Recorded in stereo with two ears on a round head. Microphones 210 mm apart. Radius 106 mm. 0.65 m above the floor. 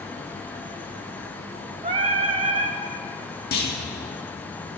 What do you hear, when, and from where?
1.8 s singing: 25° right (ahead or behind), 0.6 m
3.5 s a clunk: 45° left (ahead or behind), 1.4 m